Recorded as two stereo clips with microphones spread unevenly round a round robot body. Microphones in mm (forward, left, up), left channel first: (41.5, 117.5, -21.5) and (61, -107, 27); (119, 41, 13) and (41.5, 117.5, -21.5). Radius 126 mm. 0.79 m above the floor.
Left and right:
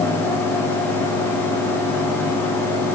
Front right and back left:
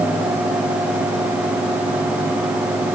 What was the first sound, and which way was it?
Only background noise.